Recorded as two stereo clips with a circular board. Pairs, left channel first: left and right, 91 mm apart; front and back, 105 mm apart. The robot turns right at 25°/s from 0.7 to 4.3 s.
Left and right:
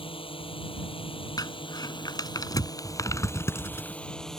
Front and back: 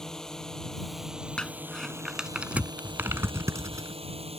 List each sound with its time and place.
0.0 s a drone: 85° left; by 4.4 s 175° left
1.4 s crumpling: 80° left; by 4.0 s 145° left